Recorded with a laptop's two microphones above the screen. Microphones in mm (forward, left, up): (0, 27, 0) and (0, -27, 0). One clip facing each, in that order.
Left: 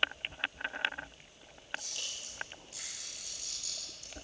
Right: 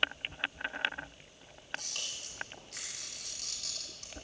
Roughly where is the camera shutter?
Right.